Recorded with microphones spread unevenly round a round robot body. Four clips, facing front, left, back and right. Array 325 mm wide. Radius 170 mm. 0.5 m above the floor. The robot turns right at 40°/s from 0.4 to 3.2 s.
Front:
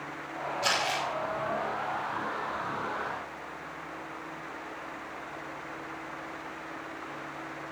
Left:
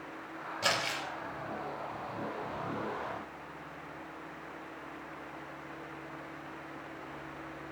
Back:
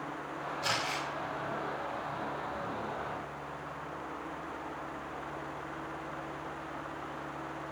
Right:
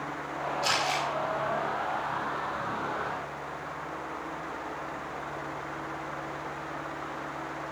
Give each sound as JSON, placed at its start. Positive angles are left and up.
{"t": 0.6, "sound": "crumpling", "azimuth_deg": 85, "distance_m": 8.0}